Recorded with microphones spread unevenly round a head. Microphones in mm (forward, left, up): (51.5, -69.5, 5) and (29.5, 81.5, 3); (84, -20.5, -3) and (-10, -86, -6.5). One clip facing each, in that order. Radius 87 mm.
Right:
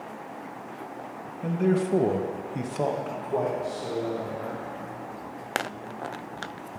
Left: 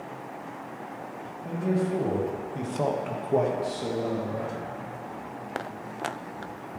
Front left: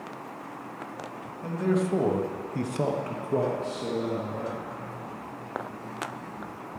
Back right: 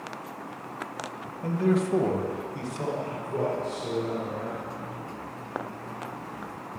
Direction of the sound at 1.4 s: 65° right.